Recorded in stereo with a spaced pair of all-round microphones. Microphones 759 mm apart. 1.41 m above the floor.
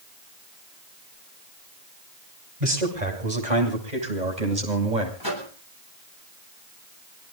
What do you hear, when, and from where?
2.6 s a man speaking: 75° right (ahead or behind), 8 m; by 5.1 s 85° right, 7 m
5.2 s a microwave: 30° left (ahead or behind), 8.5 m